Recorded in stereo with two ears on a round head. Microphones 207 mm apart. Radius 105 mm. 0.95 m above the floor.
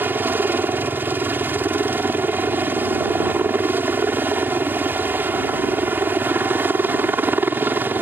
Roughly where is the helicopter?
Centre.